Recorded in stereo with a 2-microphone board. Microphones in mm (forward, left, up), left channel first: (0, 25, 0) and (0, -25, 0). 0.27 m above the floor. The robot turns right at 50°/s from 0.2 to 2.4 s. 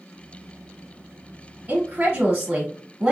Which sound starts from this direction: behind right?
A woman speaking, at 1.7 s.